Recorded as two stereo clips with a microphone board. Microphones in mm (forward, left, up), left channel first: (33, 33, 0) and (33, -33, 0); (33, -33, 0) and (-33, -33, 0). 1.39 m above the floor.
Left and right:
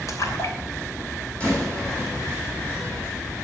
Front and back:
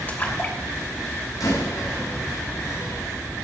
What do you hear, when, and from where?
0.1 s a splash: 60° left, 3 m
1.4 s a door slam: 15° left, 9 m